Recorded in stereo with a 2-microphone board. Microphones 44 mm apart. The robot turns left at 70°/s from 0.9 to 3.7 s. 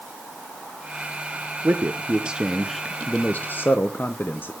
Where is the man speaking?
110° right, 0.7 m; by 4.5 s 105° left, 0.7 m.